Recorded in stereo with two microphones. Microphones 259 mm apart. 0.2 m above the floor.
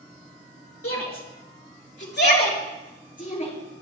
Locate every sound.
0.8 s a shout: 60° left (ahead or behind), 3.5 m; by 3.5 s 25° left (ahead or behind), 4 m